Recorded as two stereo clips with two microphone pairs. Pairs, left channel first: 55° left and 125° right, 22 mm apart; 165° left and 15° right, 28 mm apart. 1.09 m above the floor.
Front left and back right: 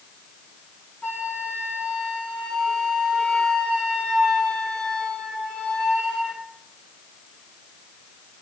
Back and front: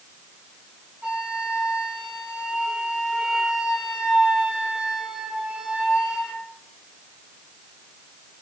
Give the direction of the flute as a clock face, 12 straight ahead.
10 o'clock.